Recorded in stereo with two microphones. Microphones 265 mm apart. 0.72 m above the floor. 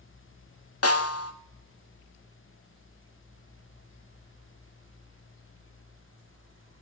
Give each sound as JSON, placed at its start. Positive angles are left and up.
{"t": 0.8, "sound": "a snare drum", "side_deg": 55, "distance_m": 0.8}